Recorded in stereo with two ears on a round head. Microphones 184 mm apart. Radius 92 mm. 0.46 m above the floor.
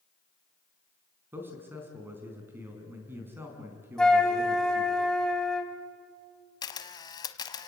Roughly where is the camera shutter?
Left.